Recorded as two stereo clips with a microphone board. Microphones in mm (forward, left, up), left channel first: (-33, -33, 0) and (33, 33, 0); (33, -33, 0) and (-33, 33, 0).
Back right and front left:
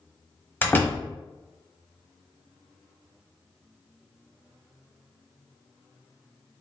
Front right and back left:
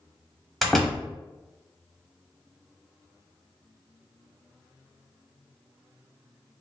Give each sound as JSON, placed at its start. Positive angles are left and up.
{"t": 0.6, "sound": "a door slam", "azimuth_deg": -130, "distance_m": 0.9}